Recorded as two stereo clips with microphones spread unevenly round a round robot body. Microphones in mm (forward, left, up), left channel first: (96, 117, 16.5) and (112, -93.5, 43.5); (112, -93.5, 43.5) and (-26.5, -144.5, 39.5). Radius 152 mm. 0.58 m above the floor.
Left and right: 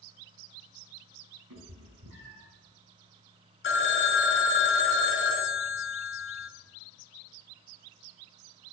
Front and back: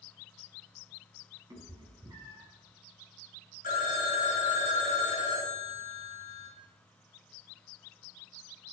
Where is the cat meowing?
95° right, 3 m.